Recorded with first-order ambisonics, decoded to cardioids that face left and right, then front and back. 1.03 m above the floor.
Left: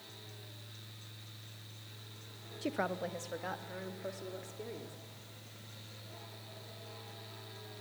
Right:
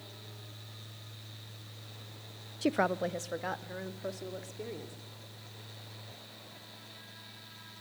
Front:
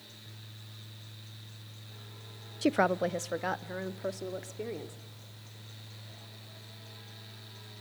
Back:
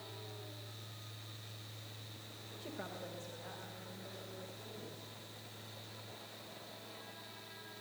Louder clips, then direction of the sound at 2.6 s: Right 6 dB, front 20 dB; 25° right.